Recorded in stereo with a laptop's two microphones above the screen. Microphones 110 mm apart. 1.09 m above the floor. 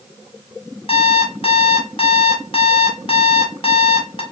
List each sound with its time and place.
0.9 s an alarm clock: 55° left (ahead or behind), 1.0 m